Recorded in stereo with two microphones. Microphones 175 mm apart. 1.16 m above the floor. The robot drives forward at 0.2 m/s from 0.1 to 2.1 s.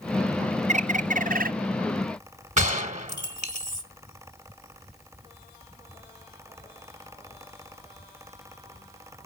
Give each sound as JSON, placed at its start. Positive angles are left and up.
{"t": 0.7, "sound": "a bird", "side_deg": -45, "distance_m": 0.6}
{"t": 2.6, "sound": "a gunshot", "side_deg": -45, "distance_m": 1.4}